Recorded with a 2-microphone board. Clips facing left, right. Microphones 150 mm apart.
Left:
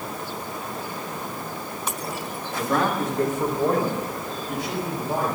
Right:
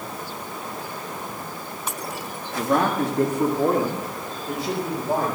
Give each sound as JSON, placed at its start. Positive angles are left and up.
{"t": 2.5, "sound": "a man speaking", "side_deg": -45, "distance_m": 1.7}